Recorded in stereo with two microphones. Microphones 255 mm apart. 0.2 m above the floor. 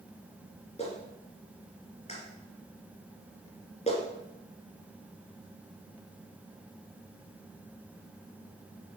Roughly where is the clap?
Left.